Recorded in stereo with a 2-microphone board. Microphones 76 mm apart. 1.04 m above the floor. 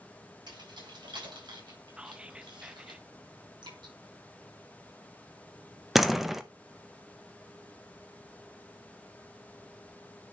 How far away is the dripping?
About 5.5 m.